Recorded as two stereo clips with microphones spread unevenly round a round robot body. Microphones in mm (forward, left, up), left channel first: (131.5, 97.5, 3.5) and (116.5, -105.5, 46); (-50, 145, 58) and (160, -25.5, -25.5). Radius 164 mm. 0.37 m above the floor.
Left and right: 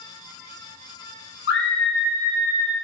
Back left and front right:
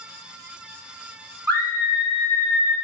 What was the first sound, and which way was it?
A scream, 100° left.